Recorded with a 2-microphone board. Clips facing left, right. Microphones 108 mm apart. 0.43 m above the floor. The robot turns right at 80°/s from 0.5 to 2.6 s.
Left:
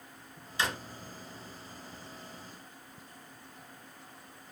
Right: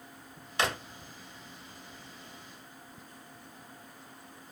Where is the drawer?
65° right (ahead or behind), 0.5 m; by 0.8 s 75° right (ahead or behind), 0.5 m.